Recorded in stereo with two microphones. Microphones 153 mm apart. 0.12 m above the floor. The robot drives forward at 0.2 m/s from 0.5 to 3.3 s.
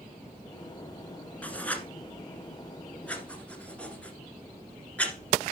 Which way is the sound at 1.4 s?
10° left (ahead or behind).